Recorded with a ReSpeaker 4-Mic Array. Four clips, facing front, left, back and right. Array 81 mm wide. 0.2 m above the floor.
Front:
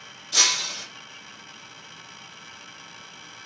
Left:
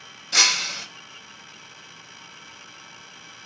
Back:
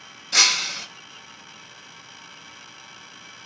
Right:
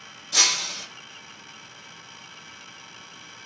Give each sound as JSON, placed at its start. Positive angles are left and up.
{"t": 0.3, "sound": "breaking glass", "azimuth_deg": 135, "distance_m": 0.6}